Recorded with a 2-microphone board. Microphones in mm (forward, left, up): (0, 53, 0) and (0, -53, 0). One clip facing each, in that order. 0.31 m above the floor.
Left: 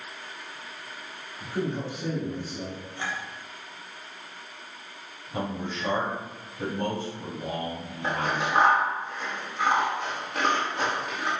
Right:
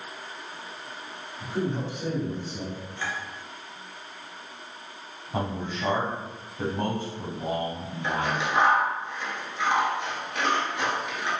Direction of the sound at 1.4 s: 20° right (ahead or behind).